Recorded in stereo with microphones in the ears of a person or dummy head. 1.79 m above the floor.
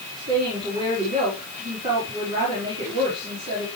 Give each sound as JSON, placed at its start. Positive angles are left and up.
{"t": 0.1, "sound": "a woman speaking", "side_deg": -35, "distance_m": 5.0}